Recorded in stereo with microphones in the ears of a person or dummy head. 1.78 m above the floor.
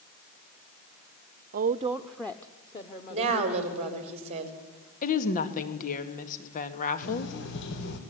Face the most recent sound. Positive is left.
turn(degrees=60)  # may be behind; listen again after turning